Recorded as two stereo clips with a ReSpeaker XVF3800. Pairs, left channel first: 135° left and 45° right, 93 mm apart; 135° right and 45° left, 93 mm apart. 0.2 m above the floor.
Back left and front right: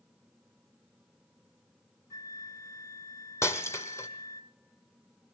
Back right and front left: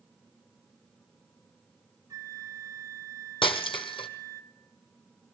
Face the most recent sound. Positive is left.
turn(degrees=-165)